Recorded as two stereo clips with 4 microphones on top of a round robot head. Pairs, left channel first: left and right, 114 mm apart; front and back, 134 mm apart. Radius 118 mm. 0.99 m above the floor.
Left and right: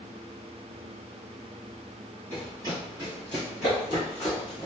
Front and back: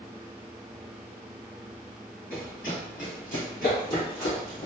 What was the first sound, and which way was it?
Running footsteps, 30° right.